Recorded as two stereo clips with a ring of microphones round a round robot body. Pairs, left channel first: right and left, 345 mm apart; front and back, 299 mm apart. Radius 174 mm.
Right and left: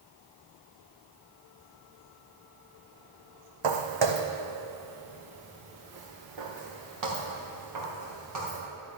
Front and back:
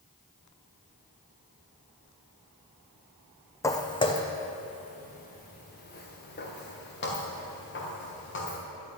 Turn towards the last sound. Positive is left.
turn(degrees=50)